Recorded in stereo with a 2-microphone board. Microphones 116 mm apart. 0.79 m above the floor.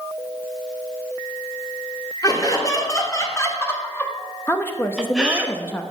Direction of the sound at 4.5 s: 20° left (ahead or behind).